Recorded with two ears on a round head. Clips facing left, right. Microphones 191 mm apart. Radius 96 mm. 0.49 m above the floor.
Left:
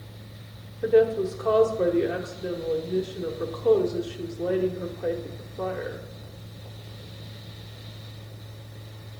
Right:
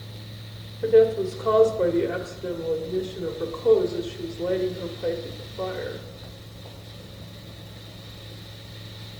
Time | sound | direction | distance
0.8 | a woman speaking | 5° left (ahead or behind) | 1.1 m